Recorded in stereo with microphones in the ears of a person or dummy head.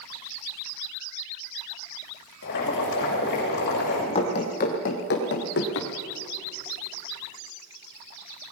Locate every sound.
2.4 s boiling: 60° left (ahead or behind), 6 m
4.2 s running footsteps: 30° left (ahead or behind), 3 m; by 5.9 s 65° left (ahead or behind), 4 m